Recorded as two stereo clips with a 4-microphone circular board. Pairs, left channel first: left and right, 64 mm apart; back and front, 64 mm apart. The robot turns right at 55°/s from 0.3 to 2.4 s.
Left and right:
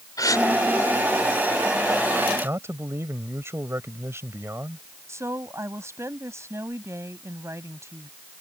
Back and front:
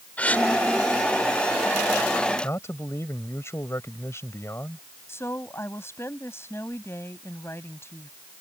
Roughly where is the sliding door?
No sliding door in this recording.